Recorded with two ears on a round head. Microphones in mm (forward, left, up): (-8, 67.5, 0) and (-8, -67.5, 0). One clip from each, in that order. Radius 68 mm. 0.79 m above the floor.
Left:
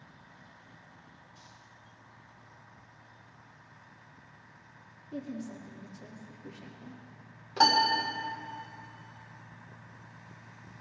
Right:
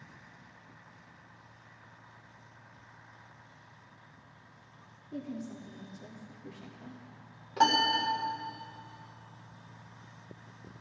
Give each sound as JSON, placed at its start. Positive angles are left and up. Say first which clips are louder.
{"t": 5.1, "sound": "a woman speaking", "louder": "left 1 dB", "side_deg": 10, "distance_m": 1.8}
{"t": 7.6, "sound": "a piano", "louder": "left 2 dB", "side_deg": 25, "distance_m": 2.0}